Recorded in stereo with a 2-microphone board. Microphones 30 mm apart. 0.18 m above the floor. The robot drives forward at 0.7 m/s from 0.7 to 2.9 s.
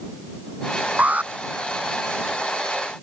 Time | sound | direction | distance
1.0 | an alarm | 55° right (ahead or behind) | ?